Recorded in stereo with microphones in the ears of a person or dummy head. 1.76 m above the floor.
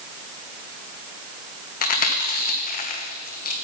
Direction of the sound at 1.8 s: 50° left (ahead or behind).